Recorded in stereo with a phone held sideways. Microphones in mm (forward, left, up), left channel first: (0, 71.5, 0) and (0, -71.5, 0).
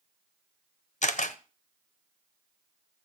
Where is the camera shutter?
55° left (ahead or behind), 0.8 m.